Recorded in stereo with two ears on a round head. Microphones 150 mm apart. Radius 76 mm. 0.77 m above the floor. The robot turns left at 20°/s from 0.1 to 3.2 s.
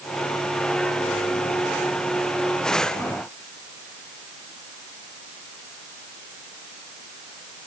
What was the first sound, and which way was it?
Only background noise.